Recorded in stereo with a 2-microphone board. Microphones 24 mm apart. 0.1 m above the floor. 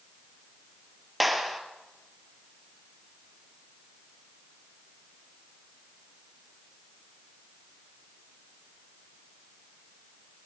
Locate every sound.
1.2 s a clap: centre (ahead or behind), 2 m